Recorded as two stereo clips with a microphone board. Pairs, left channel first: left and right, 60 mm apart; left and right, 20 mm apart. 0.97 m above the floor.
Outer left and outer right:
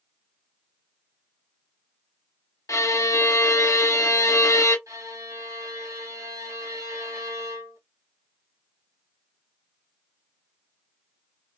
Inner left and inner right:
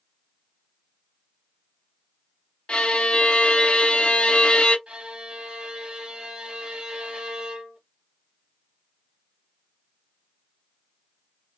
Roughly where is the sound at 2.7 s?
Left.